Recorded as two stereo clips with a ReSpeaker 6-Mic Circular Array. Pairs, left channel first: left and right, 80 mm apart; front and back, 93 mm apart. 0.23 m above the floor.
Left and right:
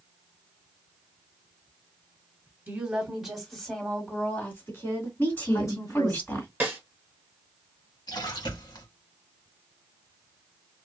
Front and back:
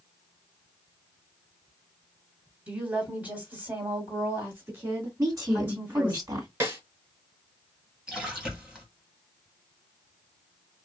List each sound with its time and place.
2.7 s a woman speaking: 125° right, 1.5 m; by 6.2 s 115° left, 2.5 m
5.2 s a woman speaking: 145° left, 2 m
6.6 s a snare drum: 140° right, 1.7 m
8.1 s a splash: 100° left, 1.9 m